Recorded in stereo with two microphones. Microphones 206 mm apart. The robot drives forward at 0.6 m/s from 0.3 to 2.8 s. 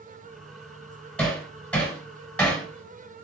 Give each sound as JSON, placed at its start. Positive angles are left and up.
{"t": 1.2, "sound": "hammering", "side_deg": 5, "distance_m": 4.0}